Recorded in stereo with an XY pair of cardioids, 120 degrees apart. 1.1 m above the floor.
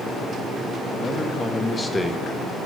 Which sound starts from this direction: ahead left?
A man speaking, at 0.9 s.